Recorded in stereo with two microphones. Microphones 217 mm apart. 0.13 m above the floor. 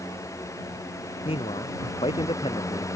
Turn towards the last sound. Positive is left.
turn(degrees=25)  # may be behind; listen again after turning